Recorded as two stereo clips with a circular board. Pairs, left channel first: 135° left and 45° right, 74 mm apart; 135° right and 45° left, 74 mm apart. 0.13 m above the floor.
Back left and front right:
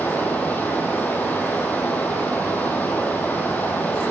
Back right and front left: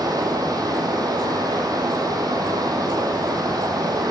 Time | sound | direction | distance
0.0 | running water | 70° left | 2 m